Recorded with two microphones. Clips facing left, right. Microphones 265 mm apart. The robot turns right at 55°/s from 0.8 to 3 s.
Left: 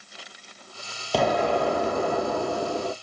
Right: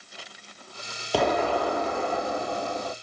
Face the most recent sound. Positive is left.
turn(degrees=100)